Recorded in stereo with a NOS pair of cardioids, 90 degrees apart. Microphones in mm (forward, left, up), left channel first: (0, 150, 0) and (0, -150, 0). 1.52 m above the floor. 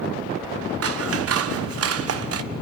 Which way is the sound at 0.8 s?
50° right.